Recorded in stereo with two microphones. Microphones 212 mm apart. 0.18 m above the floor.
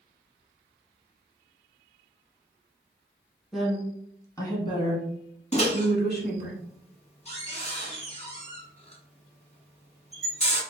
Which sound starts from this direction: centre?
A woman speaking, at 3.5 s.